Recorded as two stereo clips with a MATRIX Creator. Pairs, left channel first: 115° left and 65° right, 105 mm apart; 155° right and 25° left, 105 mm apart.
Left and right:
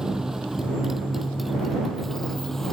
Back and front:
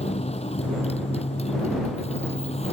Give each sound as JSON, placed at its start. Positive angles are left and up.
{"t": 0.0, "sound": "a motorcycle", "azimuth_deg": -150}